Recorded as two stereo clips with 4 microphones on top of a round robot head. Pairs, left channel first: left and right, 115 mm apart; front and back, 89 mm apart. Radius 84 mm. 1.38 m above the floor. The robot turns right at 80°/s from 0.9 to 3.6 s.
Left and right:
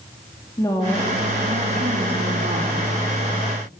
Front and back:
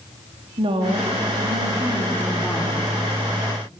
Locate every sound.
0.6 s a woman speaking: 160° left, 2.5 m; by 2.9 s 40° right, 2.5 m